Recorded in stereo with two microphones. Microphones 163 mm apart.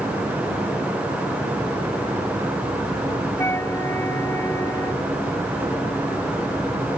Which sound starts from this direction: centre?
A flute, at 3.4 s.